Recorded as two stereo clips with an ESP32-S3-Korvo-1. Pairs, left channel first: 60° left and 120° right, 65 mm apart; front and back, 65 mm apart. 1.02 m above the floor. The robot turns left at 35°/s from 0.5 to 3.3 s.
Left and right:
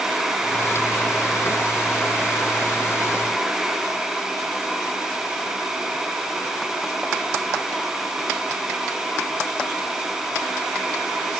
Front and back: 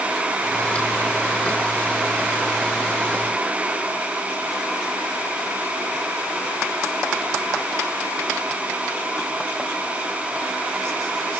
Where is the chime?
No chime in this recording.